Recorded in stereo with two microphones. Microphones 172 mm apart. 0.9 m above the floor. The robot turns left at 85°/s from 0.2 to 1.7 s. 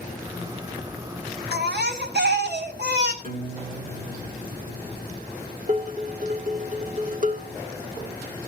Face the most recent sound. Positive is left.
turn(degrees=-50)  # may be behind; listen again after turning